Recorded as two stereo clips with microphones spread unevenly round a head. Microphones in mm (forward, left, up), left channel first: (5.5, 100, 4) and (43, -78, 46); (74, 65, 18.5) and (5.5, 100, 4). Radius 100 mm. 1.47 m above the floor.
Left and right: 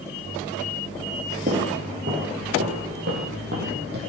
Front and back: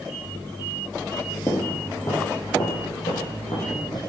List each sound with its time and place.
1.5 s footsteps: 70° right, 2 m; by 4.0 s 60° right, 4 m